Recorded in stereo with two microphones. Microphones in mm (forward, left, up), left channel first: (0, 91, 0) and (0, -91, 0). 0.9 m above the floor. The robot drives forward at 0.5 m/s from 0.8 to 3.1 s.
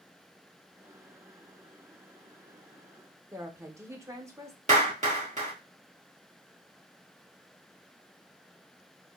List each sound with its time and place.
3.3 s a woman speaking: 15° right (ahead or behind), 0.5 m
4.7 s a clap: 45° right (ahead or behind), 1.4 m